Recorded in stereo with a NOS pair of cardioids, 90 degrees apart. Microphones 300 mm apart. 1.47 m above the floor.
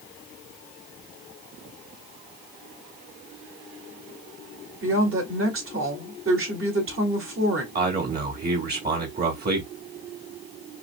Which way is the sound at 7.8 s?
30° right.